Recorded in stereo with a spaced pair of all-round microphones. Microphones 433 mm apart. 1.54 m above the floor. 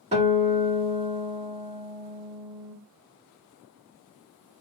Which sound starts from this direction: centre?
A guitar, at 0.1 s.